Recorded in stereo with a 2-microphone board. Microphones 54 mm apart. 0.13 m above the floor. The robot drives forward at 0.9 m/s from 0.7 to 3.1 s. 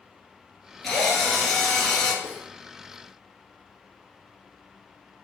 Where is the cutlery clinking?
45° right (ahead or behind), 2.5 m.